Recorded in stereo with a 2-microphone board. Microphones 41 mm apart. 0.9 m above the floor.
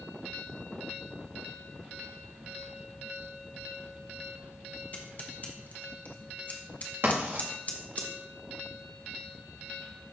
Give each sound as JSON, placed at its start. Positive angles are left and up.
{"t": 4.9, "sound": "scissors", "side_deg": 40, "distance_m": 1.0}
{"t": 7.0, "sound": "writing", "side_deg": -60, "distance_m": 1.9}